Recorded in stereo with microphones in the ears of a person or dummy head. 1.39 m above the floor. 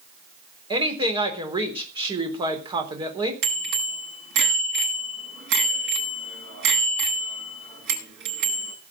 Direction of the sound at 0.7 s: 25° right (ahead or behind).